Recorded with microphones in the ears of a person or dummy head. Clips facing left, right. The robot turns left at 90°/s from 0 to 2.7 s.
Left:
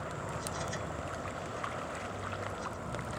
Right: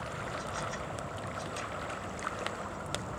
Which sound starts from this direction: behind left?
An insect, at 0.0 s.